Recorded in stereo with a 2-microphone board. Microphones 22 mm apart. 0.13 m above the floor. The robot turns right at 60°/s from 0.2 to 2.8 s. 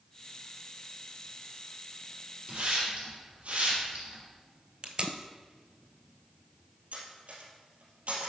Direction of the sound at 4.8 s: 50° right (ahead or behind).